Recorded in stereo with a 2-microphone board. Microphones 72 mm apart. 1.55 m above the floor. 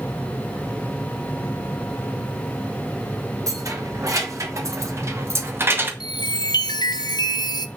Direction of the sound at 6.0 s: 75° left (ahead or behind).